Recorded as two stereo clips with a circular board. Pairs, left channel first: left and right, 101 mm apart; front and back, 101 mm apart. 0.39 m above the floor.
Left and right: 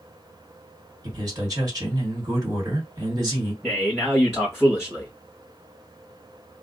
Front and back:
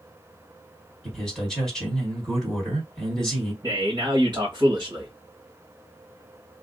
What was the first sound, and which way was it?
A man speaking, 85° right.